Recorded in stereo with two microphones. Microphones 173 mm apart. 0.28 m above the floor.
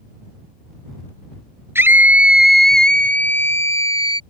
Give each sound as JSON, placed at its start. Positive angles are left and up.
{"t": 1.8, "sound": "a scream", "side_deg": -15}